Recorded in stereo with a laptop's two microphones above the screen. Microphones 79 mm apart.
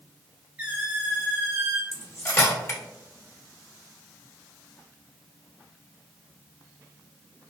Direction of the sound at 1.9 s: 40° left (ahead or behind).